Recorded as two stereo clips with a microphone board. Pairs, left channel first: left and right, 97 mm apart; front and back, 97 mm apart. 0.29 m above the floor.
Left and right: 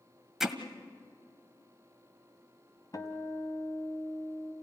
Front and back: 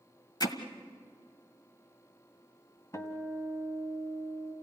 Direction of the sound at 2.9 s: 50° left.